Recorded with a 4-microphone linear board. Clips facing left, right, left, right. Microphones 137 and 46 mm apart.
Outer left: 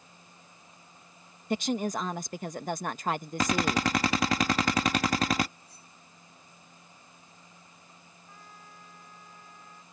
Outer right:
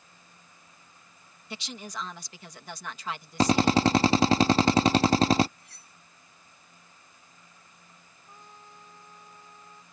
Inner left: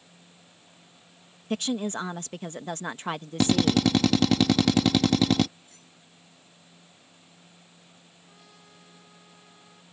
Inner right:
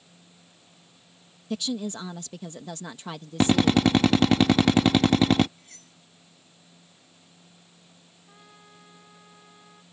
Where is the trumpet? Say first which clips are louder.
Outer right 2 dB, inner right 4 dB; 20° right (ahead or behind).